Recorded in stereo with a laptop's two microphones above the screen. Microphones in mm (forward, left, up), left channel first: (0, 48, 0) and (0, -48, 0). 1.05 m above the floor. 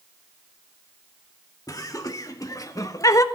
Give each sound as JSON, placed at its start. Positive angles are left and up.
{"t": 1.7, "sound": "laughter", "side_deg": 40, "distance_m": 2.0}